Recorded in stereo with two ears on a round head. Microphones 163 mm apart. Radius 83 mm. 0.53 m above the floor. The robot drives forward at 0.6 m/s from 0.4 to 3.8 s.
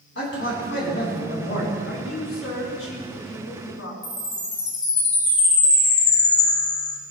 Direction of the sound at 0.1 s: 65° left (ahead or behind).